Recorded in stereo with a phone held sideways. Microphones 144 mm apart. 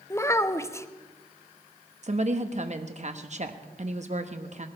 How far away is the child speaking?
About 0.7 m.